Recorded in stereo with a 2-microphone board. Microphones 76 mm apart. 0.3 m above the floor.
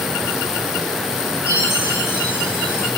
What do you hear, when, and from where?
1.5 s a chime: 35° left (ahead or behind), 2.5 m